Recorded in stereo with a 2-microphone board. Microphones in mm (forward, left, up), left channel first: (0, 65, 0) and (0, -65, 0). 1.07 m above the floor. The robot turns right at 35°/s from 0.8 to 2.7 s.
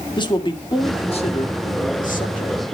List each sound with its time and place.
0.2 s a man speaking: 35° left, 1.9 m; by 2.6 s 100° left, 1.9 m